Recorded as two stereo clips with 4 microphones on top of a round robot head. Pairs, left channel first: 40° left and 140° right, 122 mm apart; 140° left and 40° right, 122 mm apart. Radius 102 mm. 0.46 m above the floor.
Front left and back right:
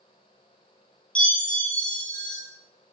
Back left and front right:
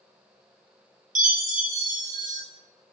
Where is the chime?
40° right, 1.5 m.